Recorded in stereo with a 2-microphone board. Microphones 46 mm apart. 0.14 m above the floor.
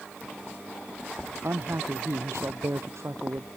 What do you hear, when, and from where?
1.4 s a man speaking: 70° right (ahead or behind)